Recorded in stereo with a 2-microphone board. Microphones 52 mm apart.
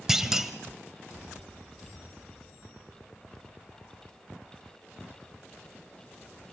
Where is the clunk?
10° right (ahead or behind), 1.0 m.